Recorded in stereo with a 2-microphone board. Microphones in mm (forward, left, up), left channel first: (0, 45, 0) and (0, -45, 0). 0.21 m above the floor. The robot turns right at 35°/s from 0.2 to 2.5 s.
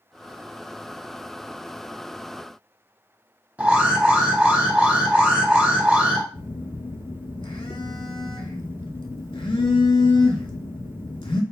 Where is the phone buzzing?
75° left (ahead or behind), 0.6 m.